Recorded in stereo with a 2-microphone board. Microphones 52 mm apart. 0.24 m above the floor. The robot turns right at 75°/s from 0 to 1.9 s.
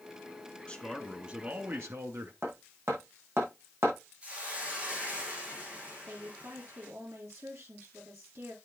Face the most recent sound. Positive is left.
turn(degrees=-70)  # may be behind; listen again after turning